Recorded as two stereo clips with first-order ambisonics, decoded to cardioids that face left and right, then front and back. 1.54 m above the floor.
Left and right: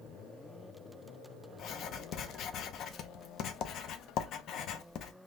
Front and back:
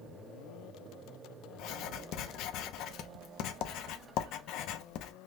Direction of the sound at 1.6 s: 40° left.